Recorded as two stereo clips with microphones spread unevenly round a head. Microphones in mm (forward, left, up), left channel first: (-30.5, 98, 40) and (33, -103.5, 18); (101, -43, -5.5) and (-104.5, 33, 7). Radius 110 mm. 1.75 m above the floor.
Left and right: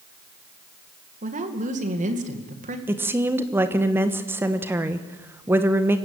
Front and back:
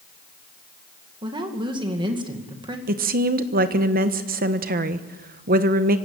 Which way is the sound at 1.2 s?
130° right.